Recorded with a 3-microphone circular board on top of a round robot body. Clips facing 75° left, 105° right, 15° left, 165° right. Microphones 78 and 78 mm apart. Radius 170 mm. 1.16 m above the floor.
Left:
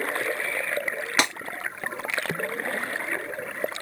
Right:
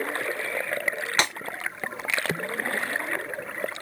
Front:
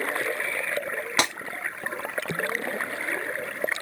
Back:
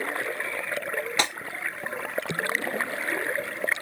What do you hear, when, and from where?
1.2 s breaking glass: 10° right, 1.5 m